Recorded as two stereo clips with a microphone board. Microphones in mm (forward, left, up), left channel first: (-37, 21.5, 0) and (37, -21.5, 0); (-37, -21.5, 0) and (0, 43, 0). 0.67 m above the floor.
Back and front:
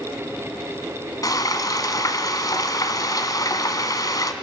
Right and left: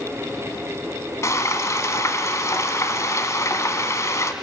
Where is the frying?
165° right, 1.3 m.